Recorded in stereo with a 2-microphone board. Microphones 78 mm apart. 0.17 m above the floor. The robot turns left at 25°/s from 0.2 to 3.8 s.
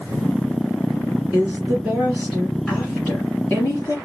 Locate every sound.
1.3 s a woman speaking: 160° right, 1.6 m; by 4.0 s 140° left, 1.6 m